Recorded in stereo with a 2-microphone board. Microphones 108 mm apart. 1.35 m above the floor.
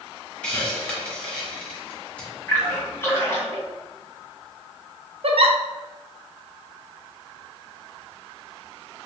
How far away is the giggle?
About 0.5 m.